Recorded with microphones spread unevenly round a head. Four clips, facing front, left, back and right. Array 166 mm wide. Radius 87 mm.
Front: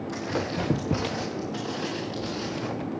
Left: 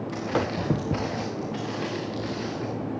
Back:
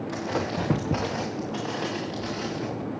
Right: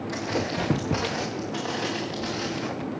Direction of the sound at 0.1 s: 170° right.